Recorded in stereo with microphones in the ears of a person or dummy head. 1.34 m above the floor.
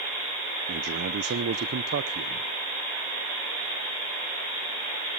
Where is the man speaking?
55° right (ahead or behind), 0.5 m.